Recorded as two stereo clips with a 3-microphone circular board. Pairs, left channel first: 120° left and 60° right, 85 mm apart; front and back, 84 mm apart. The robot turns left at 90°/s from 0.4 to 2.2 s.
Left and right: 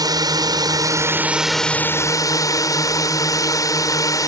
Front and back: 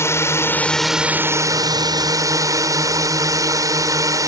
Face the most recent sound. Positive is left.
turn(degrees=150)